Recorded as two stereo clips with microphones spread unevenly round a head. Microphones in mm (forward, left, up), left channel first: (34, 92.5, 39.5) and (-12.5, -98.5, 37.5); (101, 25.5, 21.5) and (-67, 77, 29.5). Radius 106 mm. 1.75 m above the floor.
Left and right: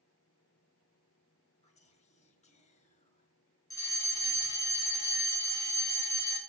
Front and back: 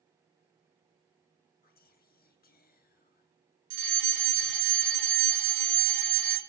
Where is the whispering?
20° left, 1.8 m.